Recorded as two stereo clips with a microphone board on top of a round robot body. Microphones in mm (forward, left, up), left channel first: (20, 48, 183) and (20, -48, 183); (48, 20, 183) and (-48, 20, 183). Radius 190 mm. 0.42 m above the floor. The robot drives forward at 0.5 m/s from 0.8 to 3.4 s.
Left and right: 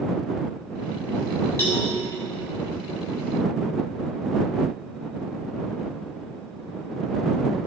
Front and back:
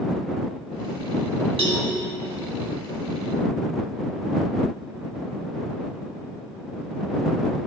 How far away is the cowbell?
About 2 m.